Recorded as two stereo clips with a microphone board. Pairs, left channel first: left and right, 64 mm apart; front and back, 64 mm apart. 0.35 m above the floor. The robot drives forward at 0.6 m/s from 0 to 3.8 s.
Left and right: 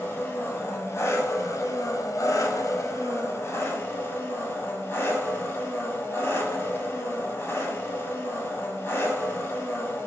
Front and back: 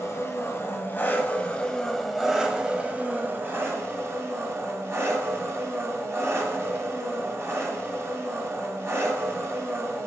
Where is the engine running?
35° left, 1.7 m; by 10.1 s 135° left, 1.5 m.